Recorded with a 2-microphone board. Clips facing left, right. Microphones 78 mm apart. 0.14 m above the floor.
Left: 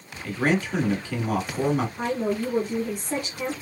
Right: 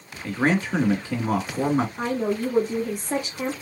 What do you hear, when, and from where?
0.2 s a man speaking: 35° right (ahead or behind), 1.2 m
2.0 s a woman speaking: 30° right (ahead or behind), 2.5 m